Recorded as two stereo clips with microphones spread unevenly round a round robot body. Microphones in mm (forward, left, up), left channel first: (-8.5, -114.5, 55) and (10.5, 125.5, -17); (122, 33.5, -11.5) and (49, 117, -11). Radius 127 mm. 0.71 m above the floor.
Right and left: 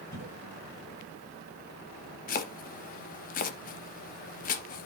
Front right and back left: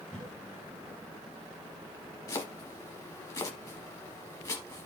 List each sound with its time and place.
0.1 s a cough: 125° right, 8 m
2.3 s chopping: 105° right, 0.7 m